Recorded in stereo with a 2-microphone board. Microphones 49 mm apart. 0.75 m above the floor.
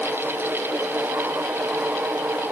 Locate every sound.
Only background noise.